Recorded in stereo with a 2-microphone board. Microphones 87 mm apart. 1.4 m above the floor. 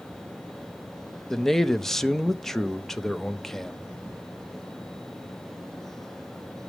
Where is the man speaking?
5° left (ahead or behind), 0.5 m.